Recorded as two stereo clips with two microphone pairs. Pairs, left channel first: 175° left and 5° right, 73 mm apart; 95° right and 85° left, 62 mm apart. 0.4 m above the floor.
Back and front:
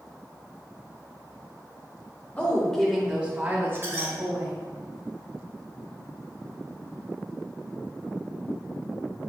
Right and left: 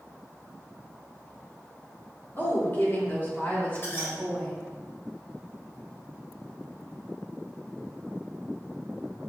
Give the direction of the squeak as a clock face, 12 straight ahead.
2 o'clock.